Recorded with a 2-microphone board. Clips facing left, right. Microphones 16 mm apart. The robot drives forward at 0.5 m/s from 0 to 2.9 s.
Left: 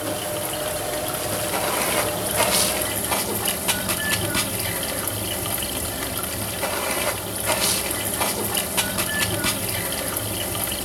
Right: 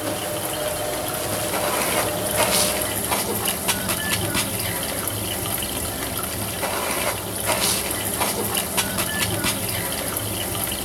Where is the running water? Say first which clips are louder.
Right 1 dB; centre (ahead or behind), 1.2 m.